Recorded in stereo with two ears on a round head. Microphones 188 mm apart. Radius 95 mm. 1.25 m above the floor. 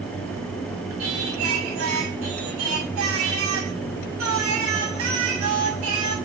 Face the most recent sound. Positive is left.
turn(degrees=-75)  # may be behind; listen again after turning